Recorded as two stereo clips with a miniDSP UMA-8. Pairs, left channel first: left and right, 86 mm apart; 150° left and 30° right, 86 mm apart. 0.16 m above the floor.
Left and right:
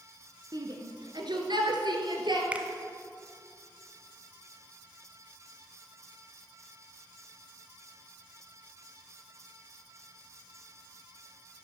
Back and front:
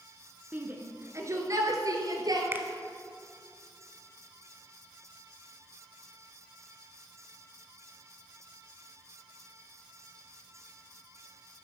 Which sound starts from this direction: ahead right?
A finger snap, at 2.5 s.